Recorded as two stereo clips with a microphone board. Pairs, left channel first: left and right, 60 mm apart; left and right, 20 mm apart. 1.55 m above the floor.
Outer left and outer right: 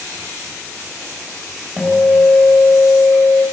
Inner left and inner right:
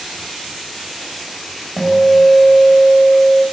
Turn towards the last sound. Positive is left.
turn(degrees=5)  # may be behind; listen again after turning